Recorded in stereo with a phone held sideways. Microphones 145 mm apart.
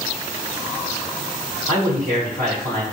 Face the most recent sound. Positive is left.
turn(degrees=-85)